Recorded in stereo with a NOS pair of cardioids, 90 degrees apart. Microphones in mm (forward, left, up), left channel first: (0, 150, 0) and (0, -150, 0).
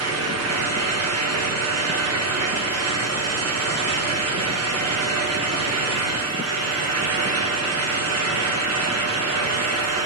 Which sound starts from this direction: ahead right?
A fan, at 0.0 s.